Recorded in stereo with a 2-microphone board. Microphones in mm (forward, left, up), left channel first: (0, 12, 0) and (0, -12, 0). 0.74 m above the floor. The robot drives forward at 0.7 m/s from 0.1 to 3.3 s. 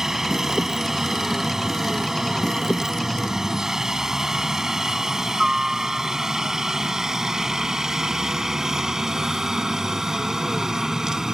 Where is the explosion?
I don't hear an explosion.